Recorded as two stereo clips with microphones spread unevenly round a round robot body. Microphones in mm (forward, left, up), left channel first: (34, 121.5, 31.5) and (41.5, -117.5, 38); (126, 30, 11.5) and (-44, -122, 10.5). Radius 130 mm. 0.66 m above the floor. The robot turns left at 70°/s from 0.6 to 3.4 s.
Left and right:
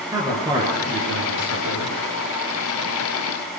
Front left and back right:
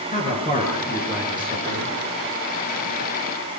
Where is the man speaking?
15° right, 10 m; by 1.9 s 105° right, 10 m.